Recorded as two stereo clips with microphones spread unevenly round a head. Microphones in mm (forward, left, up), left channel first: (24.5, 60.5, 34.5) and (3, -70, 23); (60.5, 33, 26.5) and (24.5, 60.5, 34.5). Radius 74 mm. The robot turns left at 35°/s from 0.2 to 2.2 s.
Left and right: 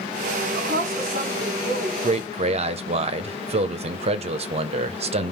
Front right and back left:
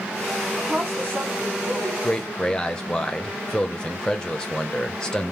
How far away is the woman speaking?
About 3.5 m.